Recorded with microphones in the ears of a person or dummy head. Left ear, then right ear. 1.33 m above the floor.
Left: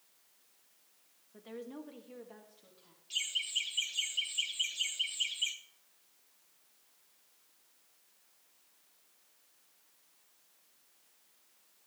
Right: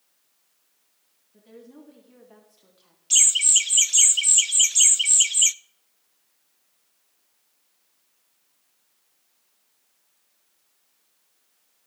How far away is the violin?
No violin in this recording.